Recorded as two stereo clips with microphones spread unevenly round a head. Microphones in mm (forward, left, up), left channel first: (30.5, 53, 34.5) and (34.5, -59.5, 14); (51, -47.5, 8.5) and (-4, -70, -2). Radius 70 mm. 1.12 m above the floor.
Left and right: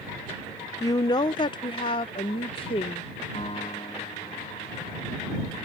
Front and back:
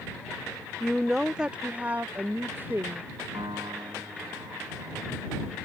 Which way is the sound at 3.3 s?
150° left.